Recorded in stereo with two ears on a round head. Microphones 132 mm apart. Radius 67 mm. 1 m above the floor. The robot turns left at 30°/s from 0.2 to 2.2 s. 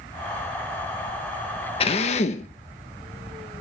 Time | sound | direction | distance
1.8 | a drill | 40° left (ahead or behind) | 1.3 m